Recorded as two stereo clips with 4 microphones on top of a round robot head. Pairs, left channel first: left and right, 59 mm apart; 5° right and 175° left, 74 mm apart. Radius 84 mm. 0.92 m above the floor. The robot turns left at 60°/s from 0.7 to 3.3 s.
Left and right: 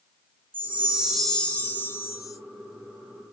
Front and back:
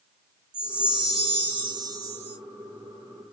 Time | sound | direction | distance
0.5 | a chime | 150° right | 1.6 m